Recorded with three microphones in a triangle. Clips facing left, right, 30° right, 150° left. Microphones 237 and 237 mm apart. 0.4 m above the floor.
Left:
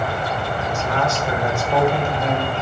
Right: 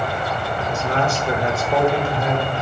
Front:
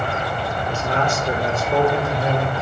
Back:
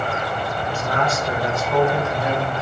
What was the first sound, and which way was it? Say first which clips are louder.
A man speaking: right 2 dB, front 1 dB; 80° right.